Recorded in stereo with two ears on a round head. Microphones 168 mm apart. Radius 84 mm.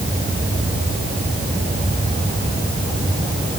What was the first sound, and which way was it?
Only background noise.